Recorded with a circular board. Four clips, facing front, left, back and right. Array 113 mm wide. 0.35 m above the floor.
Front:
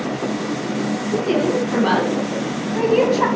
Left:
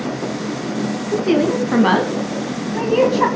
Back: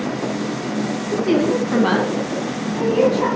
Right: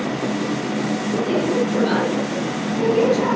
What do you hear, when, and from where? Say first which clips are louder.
1.1 s a woman speaking: left 5 dB, back 2 dB; 115° left, 3 m; by 3.3 s 60° left, 2.5 m